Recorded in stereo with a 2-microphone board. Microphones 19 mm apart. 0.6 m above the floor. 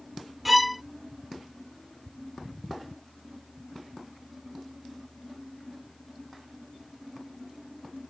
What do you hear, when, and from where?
0.5 s a violin: 5° right (ahead or behind)